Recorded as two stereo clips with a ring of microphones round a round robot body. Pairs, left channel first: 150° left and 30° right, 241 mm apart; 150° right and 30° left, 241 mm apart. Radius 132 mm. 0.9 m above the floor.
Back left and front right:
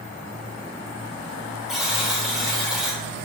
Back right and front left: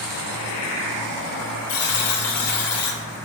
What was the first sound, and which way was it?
A buzzer, 120° right.